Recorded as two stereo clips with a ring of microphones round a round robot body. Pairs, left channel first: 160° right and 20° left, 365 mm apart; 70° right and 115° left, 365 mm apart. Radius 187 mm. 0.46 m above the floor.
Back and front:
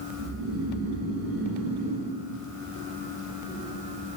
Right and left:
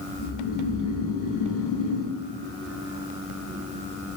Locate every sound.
0.2 s snoring: 30° right, 1.3 m